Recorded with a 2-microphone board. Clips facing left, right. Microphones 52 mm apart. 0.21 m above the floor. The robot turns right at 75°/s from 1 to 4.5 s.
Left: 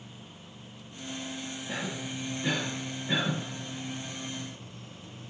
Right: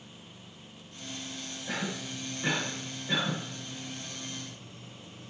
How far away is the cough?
About 3 m.